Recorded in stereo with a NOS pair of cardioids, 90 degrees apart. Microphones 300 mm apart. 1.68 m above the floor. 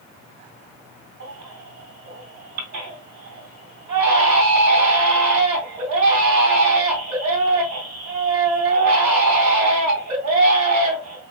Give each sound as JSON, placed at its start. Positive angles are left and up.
{"t": 1.2, "sound": "a baby crying", "azimuth_deg": -70, "distance_m": 2.0}